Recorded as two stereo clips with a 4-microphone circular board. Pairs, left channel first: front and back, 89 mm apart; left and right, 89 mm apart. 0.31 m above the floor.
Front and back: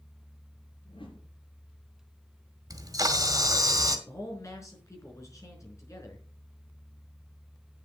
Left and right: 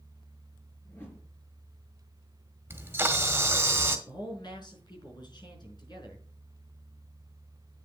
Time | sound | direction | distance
0.8 | a whoosh | 25° left | 3.5 m
2.7 | a camera shutter | 150° right | 1.7 m
4.1 | a man speaking | 55° left | 4.5 m